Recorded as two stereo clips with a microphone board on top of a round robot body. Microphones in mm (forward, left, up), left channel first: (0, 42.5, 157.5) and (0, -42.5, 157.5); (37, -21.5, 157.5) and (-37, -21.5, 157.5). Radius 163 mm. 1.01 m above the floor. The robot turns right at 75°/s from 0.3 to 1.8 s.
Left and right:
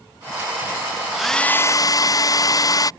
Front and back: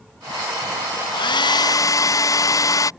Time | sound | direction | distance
1.1 | a hair dryer | 10° right | ?